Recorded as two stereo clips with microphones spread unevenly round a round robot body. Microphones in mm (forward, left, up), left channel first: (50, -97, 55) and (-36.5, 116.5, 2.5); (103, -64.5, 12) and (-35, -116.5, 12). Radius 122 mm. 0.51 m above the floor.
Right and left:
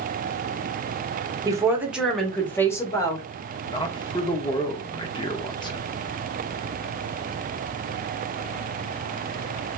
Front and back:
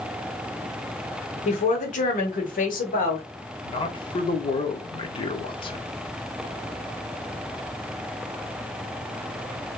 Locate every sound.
1.4 s a woman speaking: 50° left, 1.1 m; by 3.2 s 10° left, 1.6 m
3.6 s a man speaking: 10° left, 0.9 m